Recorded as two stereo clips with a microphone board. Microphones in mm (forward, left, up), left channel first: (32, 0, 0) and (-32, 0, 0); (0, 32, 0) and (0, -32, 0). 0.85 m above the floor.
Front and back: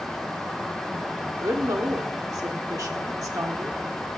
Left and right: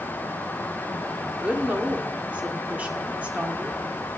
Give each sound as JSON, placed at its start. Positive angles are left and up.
{"t": 1.4, "sound": "a woman speaking", "azimuth_deg": -160, "distance_m": 1.7}